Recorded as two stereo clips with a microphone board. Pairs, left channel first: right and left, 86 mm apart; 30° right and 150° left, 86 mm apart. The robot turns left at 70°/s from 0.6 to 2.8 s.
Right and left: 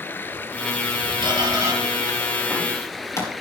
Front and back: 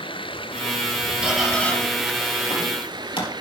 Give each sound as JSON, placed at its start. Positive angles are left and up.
{"t": 0.0, "sound": "running water", "azimuth_deg": -25, "distance_m": 0.7}
{"t": 1.2, "sound": "a squeak", "azimuth_deg": 75, "distance_m": 3.5}